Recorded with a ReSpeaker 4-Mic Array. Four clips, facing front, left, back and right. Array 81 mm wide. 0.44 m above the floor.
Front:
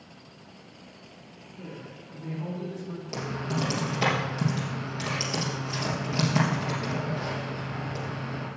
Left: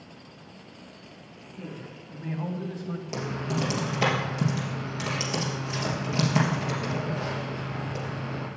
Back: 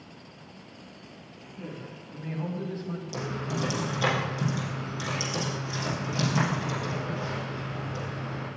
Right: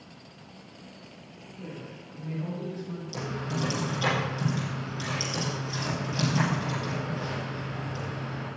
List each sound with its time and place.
1.6 s a man speaking: 105° left, 3 m; by 3.0 s 115° left, 1.6 m
3.1 s typing on a keyboard: 65° left, 3 m